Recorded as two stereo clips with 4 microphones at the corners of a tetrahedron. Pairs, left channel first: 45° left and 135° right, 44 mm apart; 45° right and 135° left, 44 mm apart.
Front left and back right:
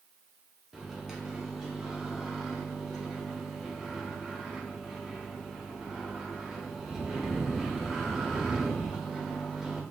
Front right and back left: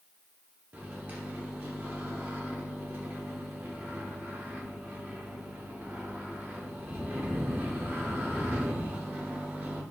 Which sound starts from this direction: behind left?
A microwave, at 0.7 s.